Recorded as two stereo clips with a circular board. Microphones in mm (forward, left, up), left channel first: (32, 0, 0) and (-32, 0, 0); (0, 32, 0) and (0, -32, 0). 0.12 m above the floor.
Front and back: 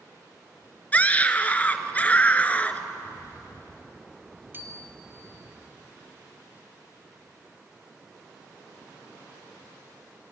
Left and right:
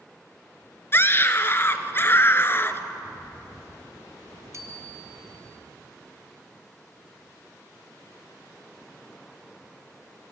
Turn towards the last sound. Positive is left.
turn(degrees=-125)